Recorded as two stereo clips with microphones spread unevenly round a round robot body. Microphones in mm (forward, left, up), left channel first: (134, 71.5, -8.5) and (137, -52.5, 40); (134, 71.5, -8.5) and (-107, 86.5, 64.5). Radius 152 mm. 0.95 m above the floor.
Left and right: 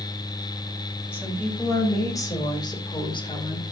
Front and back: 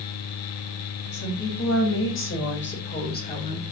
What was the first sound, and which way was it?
A woman speaking, 20° left.